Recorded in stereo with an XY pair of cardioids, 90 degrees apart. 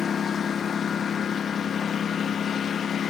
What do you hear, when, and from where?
0.0 s a lawn mower: 55° left; by 3.1 s 60° left